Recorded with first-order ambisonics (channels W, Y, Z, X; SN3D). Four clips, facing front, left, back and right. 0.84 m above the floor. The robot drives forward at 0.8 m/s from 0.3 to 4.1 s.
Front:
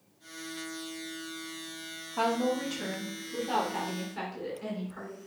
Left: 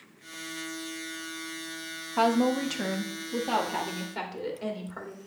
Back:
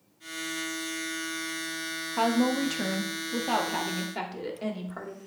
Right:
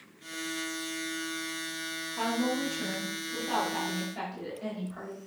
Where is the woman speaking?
105° left, 1.1 m; by 5.3 s 155° left, 2 m.